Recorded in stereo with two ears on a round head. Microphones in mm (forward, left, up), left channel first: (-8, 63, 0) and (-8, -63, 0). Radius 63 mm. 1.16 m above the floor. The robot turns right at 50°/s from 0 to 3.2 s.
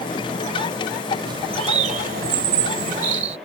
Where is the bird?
145° right; by 3.4 s 50° right.